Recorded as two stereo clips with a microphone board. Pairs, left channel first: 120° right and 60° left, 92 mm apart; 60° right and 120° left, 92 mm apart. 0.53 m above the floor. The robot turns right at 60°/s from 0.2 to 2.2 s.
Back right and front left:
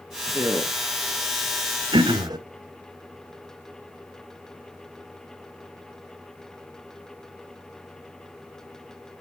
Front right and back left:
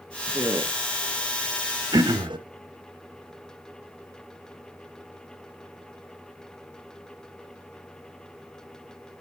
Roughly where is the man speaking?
Left.